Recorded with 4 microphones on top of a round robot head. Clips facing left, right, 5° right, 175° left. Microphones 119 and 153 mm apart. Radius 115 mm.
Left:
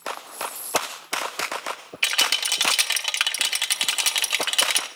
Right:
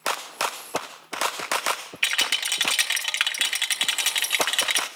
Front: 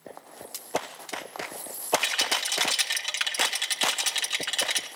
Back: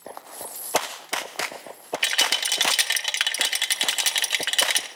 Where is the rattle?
150° left, 2.0 m.